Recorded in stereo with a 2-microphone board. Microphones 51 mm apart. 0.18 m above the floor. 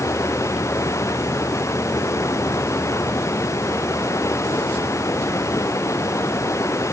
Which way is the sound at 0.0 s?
80° left.